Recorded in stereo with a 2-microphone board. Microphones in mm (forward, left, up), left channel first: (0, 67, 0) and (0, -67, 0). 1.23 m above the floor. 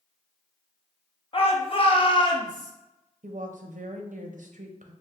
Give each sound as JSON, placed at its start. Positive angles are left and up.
{"t": 1.3, "sound": "a shout", "side_deg": 45, "distance_m": 0.8}
{"t": 3.2, "sound": "a woman speaking", "side_deg": -75, "distance_m": 0.6}